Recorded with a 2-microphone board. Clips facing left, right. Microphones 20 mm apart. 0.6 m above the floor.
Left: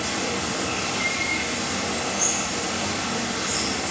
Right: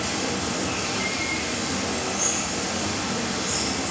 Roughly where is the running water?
Centre.